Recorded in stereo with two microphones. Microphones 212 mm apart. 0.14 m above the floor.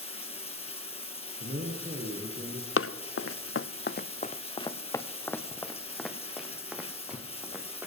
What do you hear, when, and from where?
0.0 s running water: 25° left (ahead or behind), 2.5 m
1.4 s a man speaking: 45° right (ahead or behind), 2.5 m
2.8 s running footsteps: 70° left (ahead or behind), 0.7 m; by 7.9 s 10° right (ahead or behind), 2.5 m